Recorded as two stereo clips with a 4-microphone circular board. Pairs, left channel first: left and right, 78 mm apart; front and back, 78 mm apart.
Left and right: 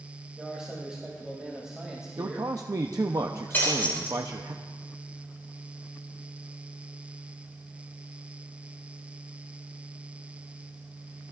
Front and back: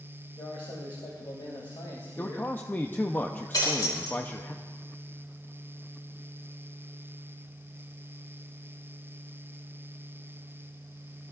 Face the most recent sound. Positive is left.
turn(degrees=25)